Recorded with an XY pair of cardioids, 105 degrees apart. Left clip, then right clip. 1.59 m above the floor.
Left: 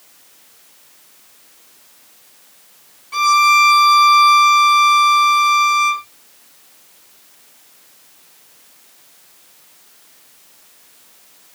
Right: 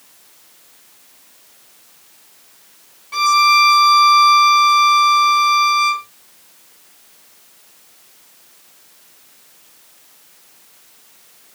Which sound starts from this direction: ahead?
A violin, at 3.1 s.